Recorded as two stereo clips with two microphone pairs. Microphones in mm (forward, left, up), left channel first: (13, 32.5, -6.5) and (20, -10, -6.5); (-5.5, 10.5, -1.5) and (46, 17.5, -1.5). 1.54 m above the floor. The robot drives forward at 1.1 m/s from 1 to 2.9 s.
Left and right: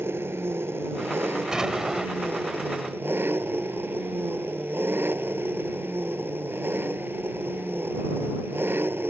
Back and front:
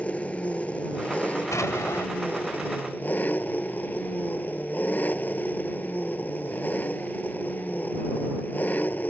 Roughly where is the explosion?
Behind right.